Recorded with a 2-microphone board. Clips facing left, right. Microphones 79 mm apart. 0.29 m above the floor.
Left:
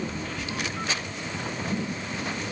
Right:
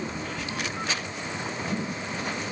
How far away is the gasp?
No gasp in this recording.